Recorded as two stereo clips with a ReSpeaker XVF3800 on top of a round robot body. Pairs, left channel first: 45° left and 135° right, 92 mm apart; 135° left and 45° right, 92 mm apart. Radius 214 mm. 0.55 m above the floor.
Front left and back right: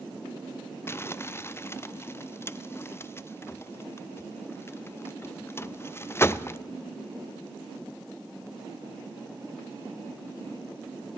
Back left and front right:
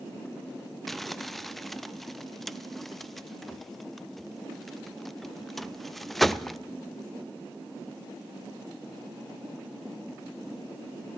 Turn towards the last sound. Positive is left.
turn(degrees=50)